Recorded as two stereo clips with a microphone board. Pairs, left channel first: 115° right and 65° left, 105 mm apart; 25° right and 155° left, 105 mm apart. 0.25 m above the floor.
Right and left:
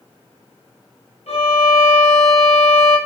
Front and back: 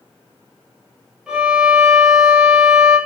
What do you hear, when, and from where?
1.3 s a violin: 120° right, 1.0 m